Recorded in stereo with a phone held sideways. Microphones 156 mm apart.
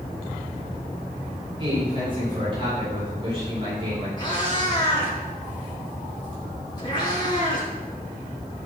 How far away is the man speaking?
About 6 m.